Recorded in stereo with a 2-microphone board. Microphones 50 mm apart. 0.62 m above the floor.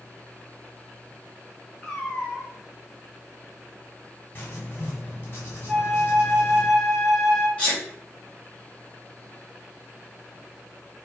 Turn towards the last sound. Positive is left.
turn(degrees=25)  # may be behind; listen again after turning